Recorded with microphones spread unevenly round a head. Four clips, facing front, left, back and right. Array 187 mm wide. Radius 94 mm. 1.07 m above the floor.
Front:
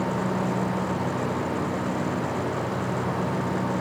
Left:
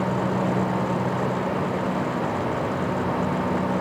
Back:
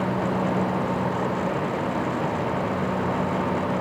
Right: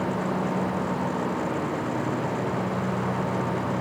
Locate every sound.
Only background noise.